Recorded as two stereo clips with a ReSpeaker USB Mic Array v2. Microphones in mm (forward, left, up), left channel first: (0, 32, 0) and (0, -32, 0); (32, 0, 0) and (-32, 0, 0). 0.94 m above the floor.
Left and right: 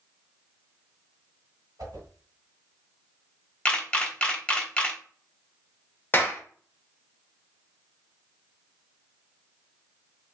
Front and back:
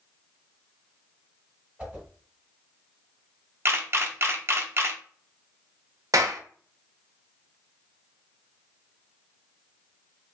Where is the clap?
150° left, 0.6 m.